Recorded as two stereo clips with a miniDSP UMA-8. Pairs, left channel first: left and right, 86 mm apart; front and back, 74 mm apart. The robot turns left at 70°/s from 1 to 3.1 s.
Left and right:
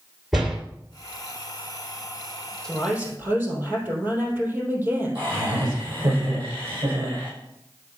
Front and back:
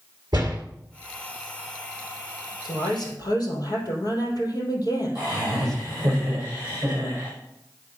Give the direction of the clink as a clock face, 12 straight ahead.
No clink in this recording.